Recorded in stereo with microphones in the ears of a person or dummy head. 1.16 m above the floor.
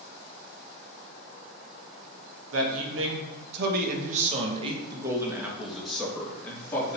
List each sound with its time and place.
2.5 s a man speaking: 80° right, 1.7 m; by 7.0 s 10° left (ahead or behind), 2 m